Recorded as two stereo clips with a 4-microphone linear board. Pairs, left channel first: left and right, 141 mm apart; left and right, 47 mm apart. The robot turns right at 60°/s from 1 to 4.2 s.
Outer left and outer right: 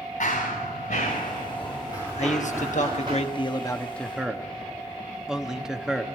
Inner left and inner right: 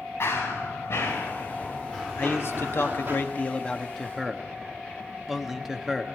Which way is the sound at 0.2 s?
70° left (ahead or behind).